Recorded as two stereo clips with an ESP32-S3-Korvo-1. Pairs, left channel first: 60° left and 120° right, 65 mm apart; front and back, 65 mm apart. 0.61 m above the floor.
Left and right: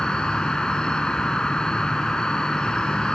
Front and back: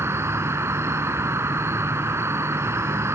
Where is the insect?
135° left, 1.2 m.